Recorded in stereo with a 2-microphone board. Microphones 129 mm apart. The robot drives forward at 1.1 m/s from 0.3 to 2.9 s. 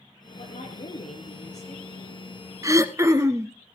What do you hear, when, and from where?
0.4 s a woman speaking: 60° left (ahead or behind), 3.5 m
2.6 s throat clearing: 25° right (ahead or behind), 0.7 m